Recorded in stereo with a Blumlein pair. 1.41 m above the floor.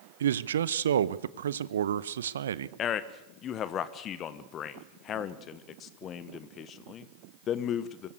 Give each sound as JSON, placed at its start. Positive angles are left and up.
{"t": 0.2, "sound": "a man speaking", "azimuth_deg": -65, "distance_m": 0.8}
{"t": 2.8, "sound": "a man speaking", "azimuth_deg": 30, "distance_m": 1.3}